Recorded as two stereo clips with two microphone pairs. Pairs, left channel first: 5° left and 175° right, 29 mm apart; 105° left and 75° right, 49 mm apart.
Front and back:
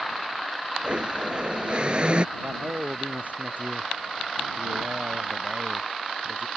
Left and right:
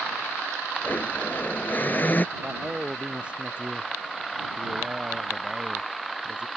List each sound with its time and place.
0.8 s a blender: 145° left
2.4 s a man speaking: 140° right